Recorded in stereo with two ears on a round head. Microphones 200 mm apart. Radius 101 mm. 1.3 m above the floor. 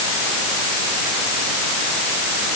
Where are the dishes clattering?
I don't hear dishes clattering.